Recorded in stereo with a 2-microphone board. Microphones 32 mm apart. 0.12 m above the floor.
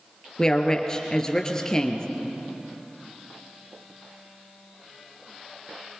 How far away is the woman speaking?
About 2 m.